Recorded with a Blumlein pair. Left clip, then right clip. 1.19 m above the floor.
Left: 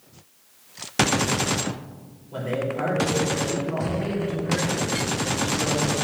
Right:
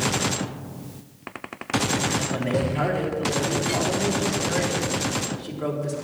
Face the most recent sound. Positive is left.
turn(degrees=-30)